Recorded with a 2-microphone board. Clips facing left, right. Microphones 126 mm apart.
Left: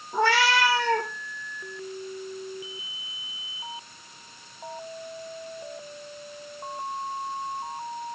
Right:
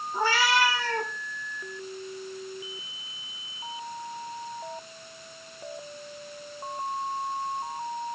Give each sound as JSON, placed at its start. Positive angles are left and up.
{"t": 0.1, "sound": "a cat meowing", "side_deg": 70, "distance_m": 5.0}